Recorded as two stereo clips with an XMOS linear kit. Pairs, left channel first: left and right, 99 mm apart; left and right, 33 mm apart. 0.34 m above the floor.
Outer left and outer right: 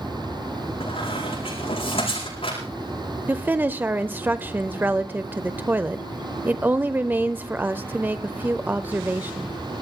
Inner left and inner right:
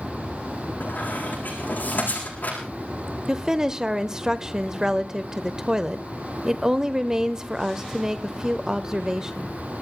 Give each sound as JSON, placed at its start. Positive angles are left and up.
{"t": 0.8, "sound": "a squeak", "side_deg": 70, "distance_m": 8.5}
{"t": 3.3, "sound": "a woman speaking", "side_deg": -20, "distance_m": 0.9}